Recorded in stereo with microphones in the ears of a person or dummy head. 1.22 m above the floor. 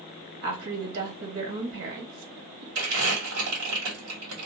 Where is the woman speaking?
80° right, 1.6 m.